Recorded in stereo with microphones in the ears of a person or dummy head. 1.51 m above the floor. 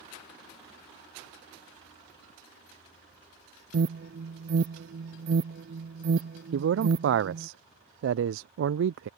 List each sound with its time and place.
3.7 s an alarm: 50° right (ahead or behind)
6.5 s a man speaking: 70° right (ahead or behind)